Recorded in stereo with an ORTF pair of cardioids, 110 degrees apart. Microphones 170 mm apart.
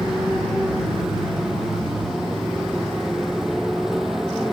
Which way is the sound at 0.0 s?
5° right.